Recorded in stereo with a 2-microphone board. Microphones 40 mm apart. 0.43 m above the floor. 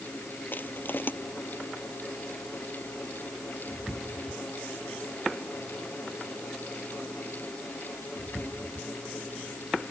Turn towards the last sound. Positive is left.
turn(degrees=55)  # may be behind; listen again after turning